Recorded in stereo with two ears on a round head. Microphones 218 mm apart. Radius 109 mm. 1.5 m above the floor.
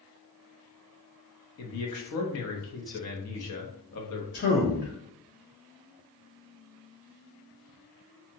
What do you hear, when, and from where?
1.6 s a man speaking: 70° left (ahead or behind), 0.8 m
4.3 s a man speaking: 45° left (ahead or behind), 0.7 m